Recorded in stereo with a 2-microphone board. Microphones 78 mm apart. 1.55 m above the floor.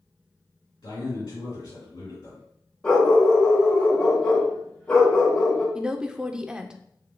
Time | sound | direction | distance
0.8 | a man speaking | 70° left (ahead or behind) | 2 m
2.8 | a dog barking | 15° left (ahead or behind) | 1.5 m
5.8 | a woman speaking | 10° right (ahead or behind) | 0.5 m